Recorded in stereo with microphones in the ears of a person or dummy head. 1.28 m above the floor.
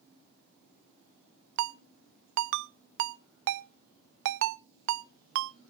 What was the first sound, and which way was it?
A ringtone, 65° right (ahead or behind).